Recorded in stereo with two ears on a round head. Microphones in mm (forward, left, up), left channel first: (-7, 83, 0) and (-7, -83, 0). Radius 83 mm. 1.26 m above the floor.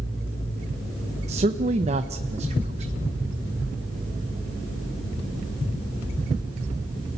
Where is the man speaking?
35° right (ahead or behind), 0.8 m.